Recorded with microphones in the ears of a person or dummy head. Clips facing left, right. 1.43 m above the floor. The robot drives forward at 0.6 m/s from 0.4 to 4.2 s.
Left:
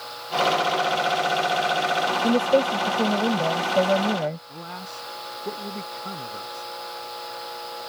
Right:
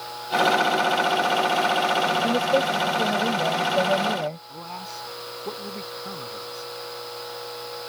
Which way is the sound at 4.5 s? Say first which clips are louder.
Even; 15° left (ahead or behind).